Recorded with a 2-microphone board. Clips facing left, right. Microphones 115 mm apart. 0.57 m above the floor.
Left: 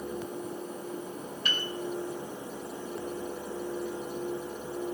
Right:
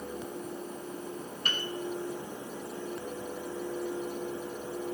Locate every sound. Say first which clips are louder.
1.4 s a piano: left 1 dB; 50° right (ahead or behind), 1.2 m